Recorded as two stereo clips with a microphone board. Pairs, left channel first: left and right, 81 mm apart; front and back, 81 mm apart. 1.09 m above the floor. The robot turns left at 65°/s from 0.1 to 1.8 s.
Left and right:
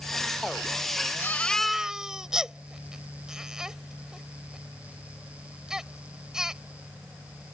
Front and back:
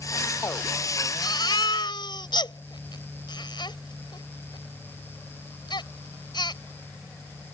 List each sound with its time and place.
1.2 s a baby crying: 35° left; by 6.6 s 5° right